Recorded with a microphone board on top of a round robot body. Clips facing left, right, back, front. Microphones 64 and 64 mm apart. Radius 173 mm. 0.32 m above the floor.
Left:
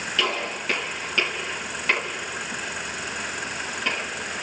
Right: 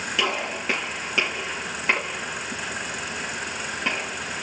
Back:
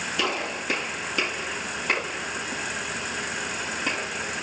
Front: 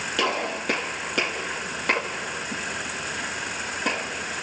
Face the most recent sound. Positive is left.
turn(degrees=-15)